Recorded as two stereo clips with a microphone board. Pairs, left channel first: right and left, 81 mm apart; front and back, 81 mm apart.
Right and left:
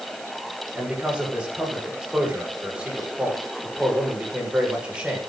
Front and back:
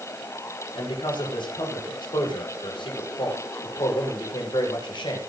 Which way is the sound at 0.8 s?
10° left.